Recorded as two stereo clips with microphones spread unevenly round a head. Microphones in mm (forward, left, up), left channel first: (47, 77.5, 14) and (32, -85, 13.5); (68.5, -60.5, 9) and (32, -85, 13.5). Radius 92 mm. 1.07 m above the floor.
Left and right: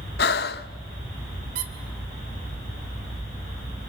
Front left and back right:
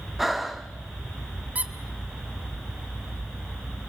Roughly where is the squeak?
Right.